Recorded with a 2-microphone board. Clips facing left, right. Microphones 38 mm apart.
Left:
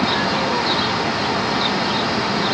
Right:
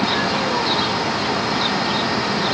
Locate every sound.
Only background noise.